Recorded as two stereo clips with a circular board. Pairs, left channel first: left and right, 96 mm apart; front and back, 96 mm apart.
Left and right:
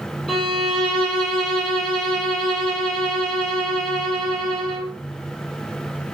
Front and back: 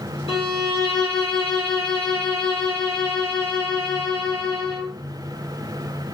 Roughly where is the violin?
Ahead.